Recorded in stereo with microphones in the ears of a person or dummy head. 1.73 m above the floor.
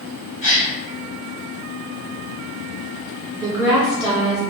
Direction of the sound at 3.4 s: 15° right (ahead or behind).